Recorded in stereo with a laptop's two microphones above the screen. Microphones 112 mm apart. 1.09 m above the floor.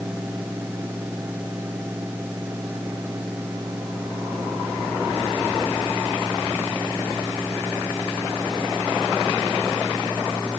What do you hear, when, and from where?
0.0 s a fan: 15° right (ahead or behind)